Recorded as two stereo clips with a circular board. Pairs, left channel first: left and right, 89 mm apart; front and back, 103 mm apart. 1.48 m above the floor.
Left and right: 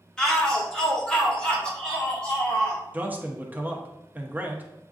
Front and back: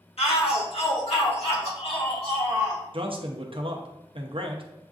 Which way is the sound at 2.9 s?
160° right.